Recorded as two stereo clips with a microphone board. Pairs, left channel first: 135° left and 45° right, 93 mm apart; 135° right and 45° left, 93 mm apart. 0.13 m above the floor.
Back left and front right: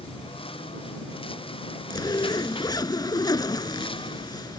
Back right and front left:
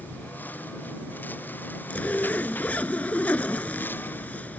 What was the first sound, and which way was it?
A lawn mower, 155° left.